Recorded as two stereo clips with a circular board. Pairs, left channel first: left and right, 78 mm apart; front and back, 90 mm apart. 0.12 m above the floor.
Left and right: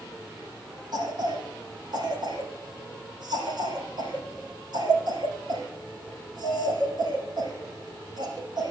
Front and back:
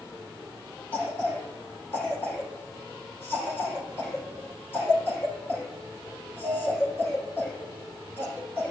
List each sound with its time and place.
0.9 s a cough: 65° right, 5.5 m